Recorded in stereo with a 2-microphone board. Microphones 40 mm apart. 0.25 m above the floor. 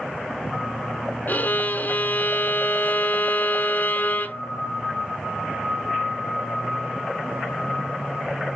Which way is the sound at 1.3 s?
55° left (ahead or behind).